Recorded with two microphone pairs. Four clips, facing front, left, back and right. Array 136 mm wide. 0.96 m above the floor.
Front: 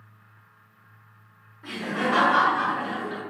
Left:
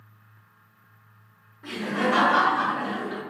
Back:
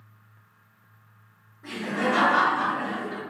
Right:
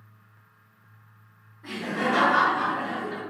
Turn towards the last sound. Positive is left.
turn(degrees=75)